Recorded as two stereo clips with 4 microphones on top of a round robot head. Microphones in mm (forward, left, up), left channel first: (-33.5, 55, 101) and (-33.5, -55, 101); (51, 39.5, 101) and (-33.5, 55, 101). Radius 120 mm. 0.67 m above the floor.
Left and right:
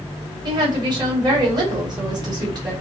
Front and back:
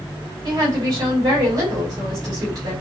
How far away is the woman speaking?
About 4 m.